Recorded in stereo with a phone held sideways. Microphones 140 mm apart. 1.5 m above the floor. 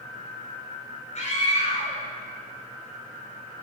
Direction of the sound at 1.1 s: 55° left (ahead or behind).